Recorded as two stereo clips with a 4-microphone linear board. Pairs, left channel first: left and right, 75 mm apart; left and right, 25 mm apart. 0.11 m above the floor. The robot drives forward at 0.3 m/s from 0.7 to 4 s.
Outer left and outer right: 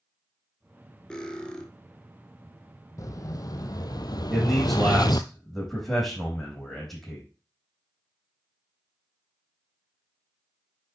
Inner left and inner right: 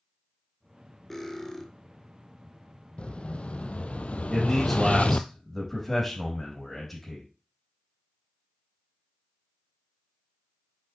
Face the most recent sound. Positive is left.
turn(degrees=5)  # may be behind; listen again after turning